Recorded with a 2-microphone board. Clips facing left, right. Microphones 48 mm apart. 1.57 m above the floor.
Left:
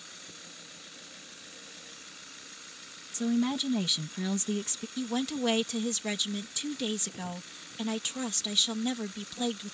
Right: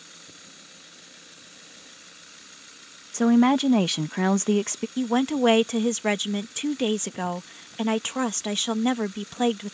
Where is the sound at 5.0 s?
45° right (ahead or behind).